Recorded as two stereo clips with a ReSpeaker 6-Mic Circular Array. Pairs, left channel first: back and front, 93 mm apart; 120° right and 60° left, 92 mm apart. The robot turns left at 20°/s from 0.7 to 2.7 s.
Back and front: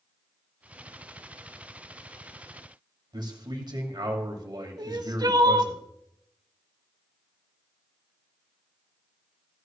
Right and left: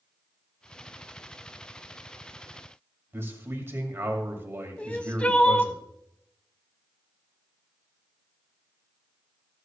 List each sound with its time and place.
3.1 s a man speaking: straight ahead, 2 m
4.8 s crying: 45° right, 0.5 m